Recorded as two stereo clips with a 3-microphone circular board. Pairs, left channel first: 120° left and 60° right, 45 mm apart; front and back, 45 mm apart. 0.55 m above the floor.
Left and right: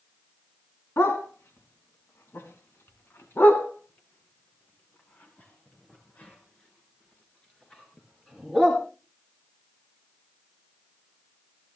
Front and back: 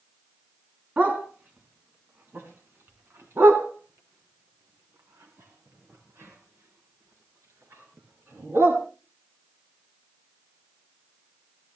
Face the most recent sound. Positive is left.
turn(degrees=-165)